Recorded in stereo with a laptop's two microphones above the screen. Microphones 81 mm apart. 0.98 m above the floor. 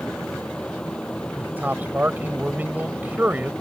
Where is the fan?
10° left (ahead or behind).